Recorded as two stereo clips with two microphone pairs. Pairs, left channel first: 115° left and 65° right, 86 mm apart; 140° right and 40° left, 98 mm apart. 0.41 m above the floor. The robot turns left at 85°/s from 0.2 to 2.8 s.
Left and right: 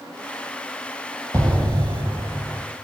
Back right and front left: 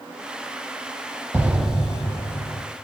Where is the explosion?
20° right, 0.6 m; by 2.6 s 130° right, 0.6 m.